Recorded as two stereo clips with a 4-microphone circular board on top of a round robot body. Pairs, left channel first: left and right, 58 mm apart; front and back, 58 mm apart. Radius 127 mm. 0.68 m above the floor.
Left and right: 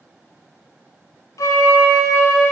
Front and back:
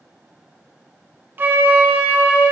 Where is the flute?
125° left, 0.6 m.